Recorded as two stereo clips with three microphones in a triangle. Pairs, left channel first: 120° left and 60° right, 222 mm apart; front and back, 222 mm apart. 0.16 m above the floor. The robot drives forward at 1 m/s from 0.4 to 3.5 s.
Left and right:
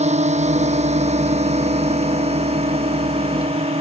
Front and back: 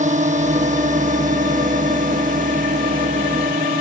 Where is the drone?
120° right; by 3.8 s 125° right.